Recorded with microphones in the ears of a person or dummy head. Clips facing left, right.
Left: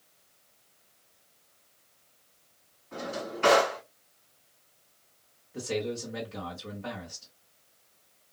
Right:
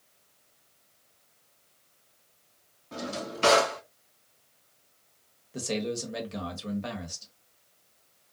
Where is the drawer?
55° right (ahead or behind), 1.1 m.